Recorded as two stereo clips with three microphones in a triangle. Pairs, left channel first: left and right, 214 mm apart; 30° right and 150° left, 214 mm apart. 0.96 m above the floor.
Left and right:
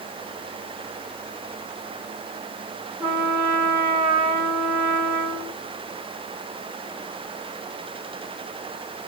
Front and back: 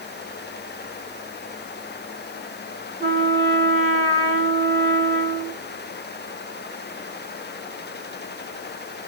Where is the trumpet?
165° right, 3.5 m.